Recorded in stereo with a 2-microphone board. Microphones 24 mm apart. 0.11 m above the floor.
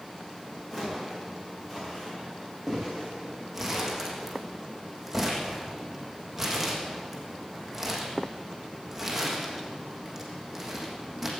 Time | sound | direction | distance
0.7 | footsteps | 5° left (ahead or behind) | 7.5 m
3.5 | crumpling | 5° right (ahead or behind) | 3.5 m